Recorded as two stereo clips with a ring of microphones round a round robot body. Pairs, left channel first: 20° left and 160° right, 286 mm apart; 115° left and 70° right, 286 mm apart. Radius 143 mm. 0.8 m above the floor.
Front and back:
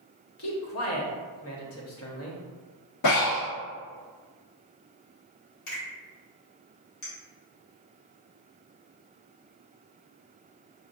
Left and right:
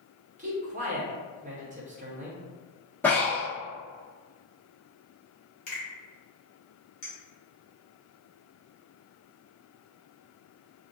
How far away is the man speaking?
About 0.8 m.